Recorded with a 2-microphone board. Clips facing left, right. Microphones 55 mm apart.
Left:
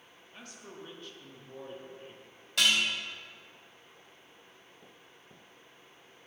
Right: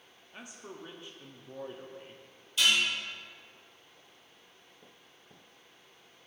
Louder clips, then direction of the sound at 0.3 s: Right 2 dB; 20° right (ahead or behind).